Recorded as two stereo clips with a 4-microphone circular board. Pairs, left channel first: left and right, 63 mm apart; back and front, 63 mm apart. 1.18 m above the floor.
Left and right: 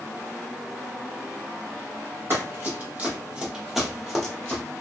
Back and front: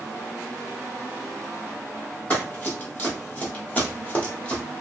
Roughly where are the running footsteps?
Behind right.